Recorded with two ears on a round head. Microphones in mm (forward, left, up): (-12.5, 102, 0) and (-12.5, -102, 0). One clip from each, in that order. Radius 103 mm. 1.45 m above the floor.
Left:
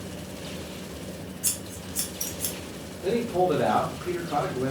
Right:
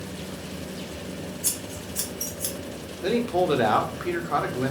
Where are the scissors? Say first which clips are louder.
Left 1 dB; 5° left (ahead or behind), 0.5 m.